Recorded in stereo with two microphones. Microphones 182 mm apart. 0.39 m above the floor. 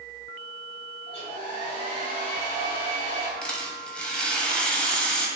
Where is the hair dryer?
35° left (ahead or behind), 1.6 m.